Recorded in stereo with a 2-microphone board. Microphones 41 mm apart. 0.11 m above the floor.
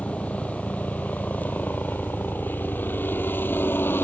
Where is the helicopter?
30° left (ahead or behind); by 4.0 s 60° left (ahead or behind).